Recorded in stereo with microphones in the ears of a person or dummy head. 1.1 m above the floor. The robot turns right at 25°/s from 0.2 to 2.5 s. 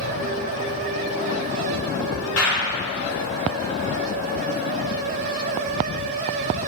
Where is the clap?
85° left, 2.5 m; by 2.8 s 80° left, 2.5 m.